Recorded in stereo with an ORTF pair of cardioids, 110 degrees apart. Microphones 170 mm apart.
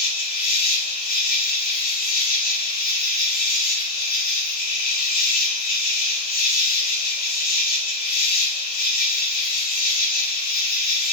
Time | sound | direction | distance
0.0 | an insect | 70° left | 2 m